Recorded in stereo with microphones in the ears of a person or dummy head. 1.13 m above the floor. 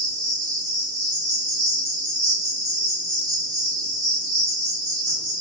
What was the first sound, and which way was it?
An insect, 20° right (ahead or behind).